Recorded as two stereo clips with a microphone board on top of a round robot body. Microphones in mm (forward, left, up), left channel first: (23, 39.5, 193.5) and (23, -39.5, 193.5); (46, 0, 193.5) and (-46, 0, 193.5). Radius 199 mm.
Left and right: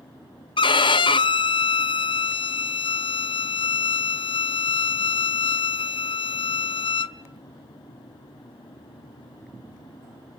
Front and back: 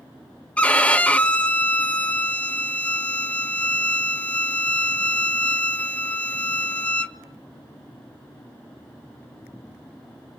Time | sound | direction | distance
0.6 | a violin | 75° left | 0.6 m